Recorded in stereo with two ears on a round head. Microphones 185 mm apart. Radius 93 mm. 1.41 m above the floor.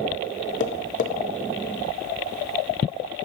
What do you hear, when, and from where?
0.6 s tapping: 40° left (ahead or behind), 0.8 m